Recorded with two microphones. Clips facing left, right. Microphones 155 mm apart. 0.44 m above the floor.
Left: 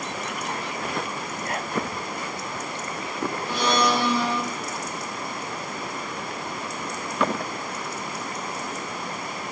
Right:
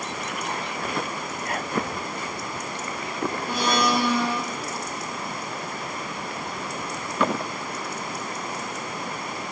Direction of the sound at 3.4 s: 55° right (ahead or behind).